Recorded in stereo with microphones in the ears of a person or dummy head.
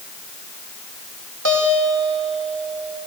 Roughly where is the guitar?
Right.